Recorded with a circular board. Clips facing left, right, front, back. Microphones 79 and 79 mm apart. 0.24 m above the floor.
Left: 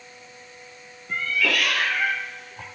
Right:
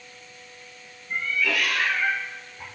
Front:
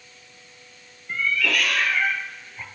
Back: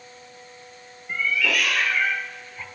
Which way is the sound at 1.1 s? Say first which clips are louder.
Left 1 dB, even; 95° left.